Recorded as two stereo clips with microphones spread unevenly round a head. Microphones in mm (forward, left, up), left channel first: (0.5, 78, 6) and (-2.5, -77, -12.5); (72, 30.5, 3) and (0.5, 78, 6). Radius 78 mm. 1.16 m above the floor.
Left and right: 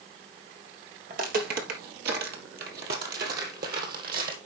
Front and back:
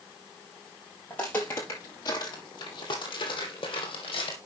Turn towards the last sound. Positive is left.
turn(degrees=-60)